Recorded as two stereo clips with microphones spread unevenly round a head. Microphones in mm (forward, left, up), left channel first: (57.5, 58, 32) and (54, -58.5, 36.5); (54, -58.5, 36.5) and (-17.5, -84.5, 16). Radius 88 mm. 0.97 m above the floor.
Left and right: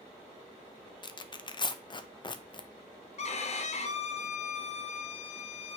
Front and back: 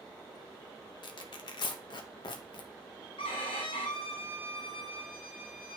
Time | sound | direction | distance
1.0 | tearing paper | 50° left | 0.8 m
3.2 | a violin | 65° left | 1.0 m